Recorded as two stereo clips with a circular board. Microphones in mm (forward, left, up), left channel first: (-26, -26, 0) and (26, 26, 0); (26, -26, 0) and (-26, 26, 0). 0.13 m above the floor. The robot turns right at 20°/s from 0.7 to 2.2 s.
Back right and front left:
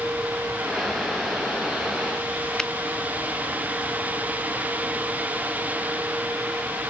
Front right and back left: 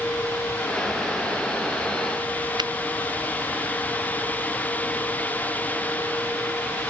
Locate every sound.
2.6 s a finger snap: 145° left